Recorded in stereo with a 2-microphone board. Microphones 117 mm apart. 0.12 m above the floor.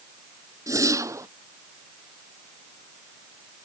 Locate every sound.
0.7 s a whoosh: 30° right (ahead or behind)